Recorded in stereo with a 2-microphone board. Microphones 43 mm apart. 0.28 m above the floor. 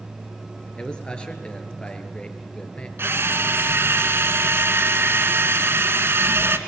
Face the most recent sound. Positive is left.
turn(degrees=-70)  # may be behind; listen again after turning